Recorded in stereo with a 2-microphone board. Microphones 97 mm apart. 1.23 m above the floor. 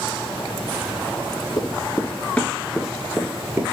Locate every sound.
1.6 s running footsteps: 40° left (ahead or behind), 1.7 m; by 3.6 s 30° right (ahead or behind), 1.3 m